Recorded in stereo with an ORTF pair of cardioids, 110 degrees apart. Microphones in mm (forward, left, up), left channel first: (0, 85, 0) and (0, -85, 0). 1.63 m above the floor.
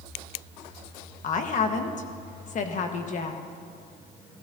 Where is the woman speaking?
50° left, 1.3 m.